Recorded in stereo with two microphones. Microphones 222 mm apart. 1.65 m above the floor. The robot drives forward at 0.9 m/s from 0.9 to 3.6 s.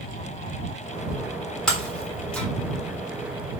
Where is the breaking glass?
5° left (ahead or behind), 3 m.